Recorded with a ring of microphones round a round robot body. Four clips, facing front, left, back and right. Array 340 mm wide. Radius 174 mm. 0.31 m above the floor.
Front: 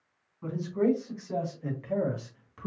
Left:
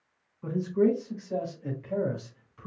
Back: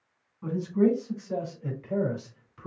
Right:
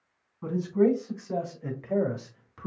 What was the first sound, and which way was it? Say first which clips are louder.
A man speaking: right 1 dB, back 3 dB; 85° right.